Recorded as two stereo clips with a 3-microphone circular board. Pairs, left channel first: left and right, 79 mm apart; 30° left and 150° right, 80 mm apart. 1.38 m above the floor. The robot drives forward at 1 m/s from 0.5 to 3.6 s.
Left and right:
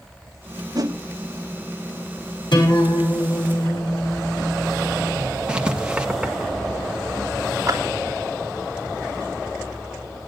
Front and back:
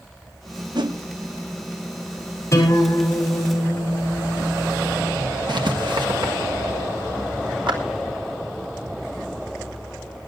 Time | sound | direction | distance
0.8 | a whoosh | 125° right | 1.3 m
2.5 | a guitar | 80° left | 5.5 m
5.5 | writing | 165° right | 1.5 m
7.7 | a clap | 140° right | 3 m